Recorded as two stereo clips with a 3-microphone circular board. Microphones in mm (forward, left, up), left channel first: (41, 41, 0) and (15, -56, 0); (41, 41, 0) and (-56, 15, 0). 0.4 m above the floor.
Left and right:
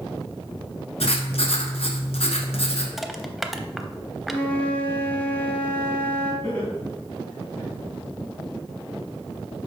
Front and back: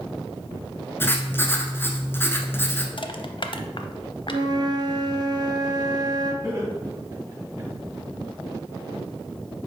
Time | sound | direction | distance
1.0 | writing | 85° left | 1.0 m
3.0 | crushing | 15° right | 0.6 m
4.3 | a flute | 150° left | 1.1 m
6.4 | laughter | 145° left | 3 m